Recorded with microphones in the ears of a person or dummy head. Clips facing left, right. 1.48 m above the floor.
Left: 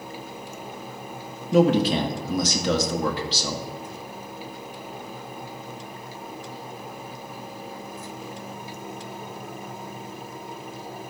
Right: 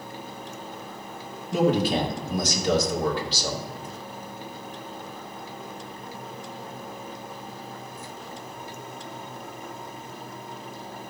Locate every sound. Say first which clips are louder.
1.5 s a man speaking: left 3 dB; 60° left (ahead or behind), 1.9 m